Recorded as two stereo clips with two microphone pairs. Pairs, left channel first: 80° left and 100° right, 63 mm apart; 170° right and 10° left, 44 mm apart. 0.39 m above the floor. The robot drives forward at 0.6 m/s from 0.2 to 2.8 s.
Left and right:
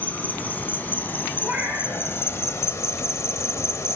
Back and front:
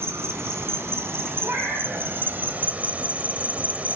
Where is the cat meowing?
5° left, 6 m.